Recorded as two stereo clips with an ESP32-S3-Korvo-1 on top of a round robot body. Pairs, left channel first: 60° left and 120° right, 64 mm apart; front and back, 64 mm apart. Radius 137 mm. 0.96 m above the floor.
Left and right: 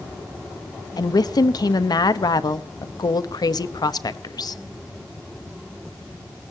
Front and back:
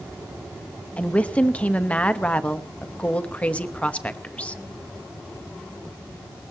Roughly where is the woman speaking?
Left.